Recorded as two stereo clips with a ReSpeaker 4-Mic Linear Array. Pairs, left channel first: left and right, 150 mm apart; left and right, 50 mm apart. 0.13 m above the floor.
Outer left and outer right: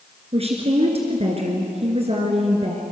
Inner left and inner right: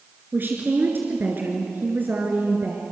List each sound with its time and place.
0.3 s a woman speaking: 45° right (ahead or behind), 2 m